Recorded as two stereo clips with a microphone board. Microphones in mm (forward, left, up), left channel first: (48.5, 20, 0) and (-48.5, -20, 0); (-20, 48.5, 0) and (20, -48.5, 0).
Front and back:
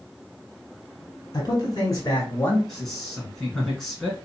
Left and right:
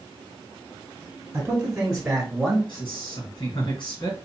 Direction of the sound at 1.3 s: 5° left.